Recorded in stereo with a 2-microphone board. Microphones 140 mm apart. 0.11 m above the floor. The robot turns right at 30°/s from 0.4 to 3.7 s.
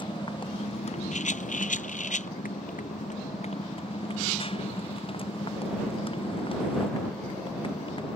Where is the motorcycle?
35° left (ahead or behind); by 8.2 s 40° left (ahead or behind).